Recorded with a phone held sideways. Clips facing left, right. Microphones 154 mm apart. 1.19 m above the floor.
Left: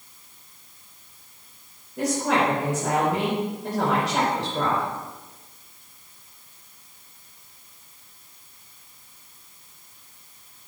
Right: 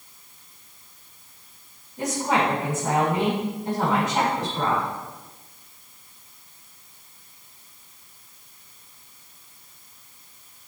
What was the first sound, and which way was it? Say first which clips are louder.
A woman speaking: left 1 dB; 85° left.